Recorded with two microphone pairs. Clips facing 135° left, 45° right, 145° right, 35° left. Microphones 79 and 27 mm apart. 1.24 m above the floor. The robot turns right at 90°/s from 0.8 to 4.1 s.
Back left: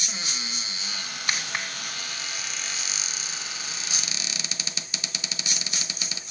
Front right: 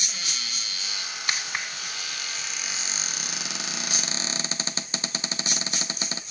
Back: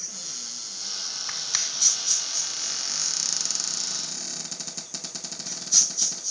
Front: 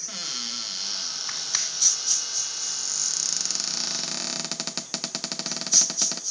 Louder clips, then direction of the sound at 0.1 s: Back left 2 dB, front 6 dB; 70° left.